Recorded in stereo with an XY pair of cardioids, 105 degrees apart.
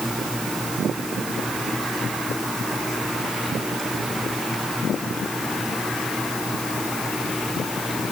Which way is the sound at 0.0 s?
5° left.